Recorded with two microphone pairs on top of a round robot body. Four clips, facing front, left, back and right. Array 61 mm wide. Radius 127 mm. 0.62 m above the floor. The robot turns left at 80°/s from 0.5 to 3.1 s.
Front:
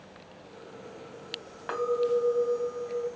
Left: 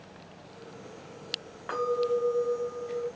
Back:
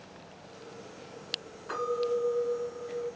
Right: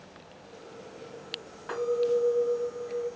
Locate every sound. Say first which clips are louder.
1.7 s a clink: right 1 dB, front 3 dB; 10° left, 2 m; by 3.1 s 100° right, 2 m